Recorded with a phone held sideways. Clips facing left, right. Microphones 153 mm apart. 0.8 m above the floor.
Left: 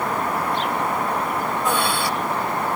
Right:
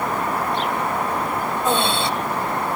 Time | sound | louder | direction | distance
1.6 | breathing | right 3 dB | 25° right (ahead or behind) | ?